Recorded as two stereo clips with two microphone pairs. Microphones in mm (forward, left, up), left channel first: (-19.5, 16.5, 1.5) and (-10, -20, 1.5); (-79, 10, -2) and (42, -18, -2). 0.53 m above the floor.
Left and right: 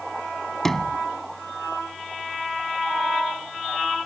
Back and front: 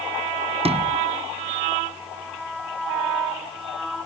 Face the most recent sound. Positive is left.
turn(degrees=20)